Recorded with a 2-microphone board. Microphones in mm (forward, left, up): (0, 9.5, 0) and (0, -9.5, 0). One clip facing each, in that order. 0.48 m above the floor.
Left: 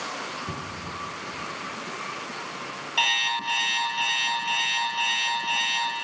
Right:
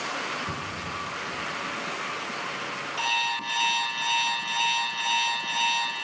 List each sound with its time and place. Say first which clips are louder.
0.5 s a cupboard door: right 1 dB; 85° left, 7 m
3.0 s an alarm clock: left 4 dB; 60° left (ahead or behind), 4 m